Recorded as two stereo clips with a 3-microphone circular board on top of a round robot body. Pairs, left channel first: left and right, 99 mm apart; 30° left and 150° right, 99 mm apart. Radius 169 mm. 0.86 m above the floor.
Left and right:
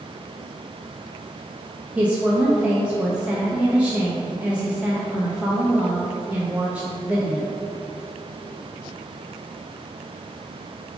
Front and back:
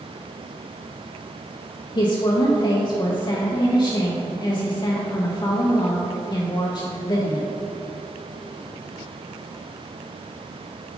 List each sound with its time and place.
1.9 s a woman speaking: 15° right, 1.0 m